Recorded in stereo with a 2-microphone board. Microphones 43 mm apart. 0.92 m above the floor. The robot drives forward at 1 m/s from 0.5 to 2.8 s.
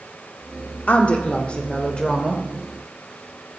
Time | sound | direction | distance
0.9 | a woman speaking | 40° left (ahead or behind) | 1.9 m